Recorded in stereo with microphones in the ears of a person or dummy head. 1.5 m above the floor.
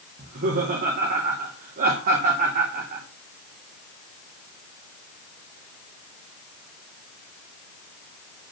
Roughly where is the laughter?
Right.